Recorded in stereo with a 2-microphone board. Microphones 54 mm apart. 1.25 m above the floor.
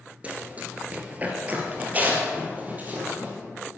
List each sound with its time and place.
0.2 s running footsteps: 25° right (ahead or behind), 1.3 m; by 3.3 s 30° right (ahead or behind), 2.5 m